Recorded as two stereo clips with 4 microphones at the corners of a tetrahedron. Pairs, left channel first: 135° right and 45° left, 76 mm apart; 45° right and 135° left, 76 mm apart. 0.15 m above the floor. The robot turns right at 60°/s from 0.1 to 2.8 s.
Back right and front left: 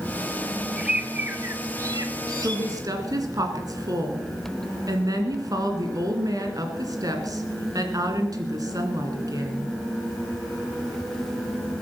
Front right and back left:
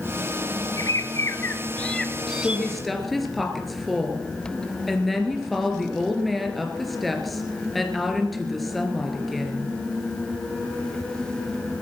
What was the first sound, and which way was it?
A bird, 40° right.